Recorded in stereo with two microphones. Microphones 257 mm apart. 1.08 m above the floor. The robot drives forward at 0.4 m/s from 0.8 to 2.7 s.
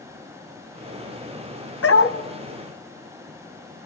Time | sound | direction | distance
1.8 | a dog barking | 60° left (ahead or behind) | 2 m